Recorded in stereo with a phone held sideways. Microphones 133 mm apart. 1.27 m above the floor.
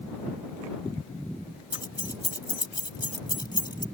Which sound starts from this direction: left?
Keys jangling, at 1.7 s.